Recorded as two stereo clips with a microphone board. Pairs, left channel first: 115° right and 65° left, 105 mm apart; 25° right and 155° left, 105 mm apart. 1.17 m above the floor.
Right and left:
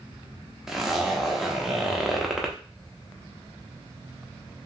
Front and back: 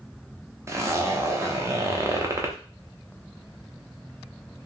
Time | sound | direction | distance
0.7 | a zipper | 150° left | 0.6 m